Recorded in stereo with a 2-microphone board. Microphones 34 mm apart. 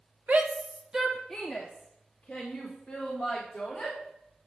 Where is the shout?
55° right (ahead or behind), 1.1 m; by 4.0 s 35° left (ahead or behind), 4.5 m.